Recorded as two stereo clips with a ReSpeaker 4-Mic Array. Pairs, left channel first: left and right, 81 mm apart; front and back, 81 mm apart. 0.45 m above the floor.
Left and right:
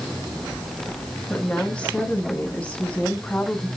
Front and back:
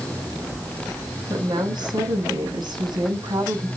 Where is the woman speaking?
165° left, 4.5 m.